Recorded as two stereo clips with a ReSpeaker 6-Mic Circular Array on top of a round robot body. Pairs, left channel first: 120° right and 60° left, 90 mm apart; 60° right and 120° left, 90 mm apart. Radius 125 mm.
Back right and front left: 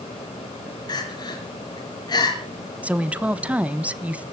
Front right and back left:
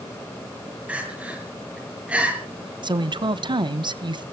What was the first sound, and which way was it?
Crying, 165° right.